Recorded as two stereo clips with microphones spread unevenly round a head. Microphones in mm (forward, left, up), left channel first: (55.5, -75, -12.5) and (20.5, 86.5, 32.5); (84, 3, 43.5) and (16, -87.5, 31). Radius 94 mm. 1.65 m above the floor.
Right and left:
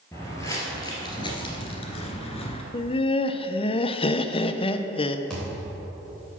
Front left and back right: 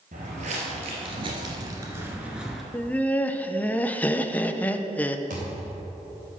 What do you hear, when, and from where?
0.1 s footsteps: 165° right, 2.5 m; by 2.6 s 30° right, 1.7 m
2.7 s laughter: 15° right, 0.7 m
5.3 s a thud: 170° right, 3 m